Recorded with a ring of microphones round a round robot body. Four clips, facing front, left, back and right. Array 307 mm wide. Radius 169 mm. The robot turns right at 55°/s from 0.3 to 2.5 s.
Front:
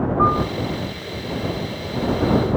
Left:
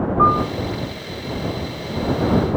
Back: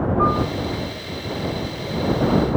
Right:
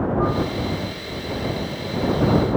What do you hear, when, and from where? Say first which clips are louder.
0.2 s a piano: left 6 dB, front 2 dB; 75° left; by 0.5 s 85° left